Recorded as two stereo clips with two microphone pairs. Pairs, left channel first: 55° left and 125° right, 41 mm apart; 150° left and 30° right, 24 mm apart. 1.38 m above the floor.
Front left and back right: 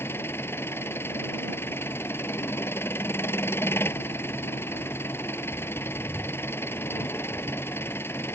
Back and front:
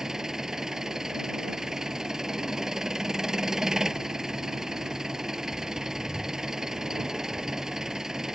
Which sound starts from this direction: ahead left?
An engine running, at 0.0 s.